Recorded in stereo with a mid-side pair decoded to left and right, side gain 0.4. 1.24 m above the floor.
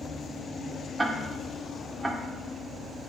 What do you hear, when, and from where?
1.0 s ticking: 25° right, 1.7 m